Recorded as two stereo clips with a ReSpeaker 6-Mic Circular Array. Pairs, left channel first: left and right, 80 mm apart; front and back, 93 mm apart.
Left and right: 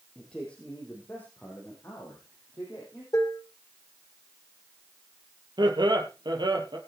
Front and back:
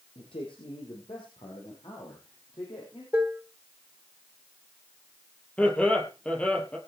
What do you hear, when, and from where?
0.1 s a man speaking: 10° left, 4 m; by 3.0 s 40° left, 6 m
3.1 s dishes clattering: 115° left, 1.2 m
5.6 s laughter: 75° right, 3 m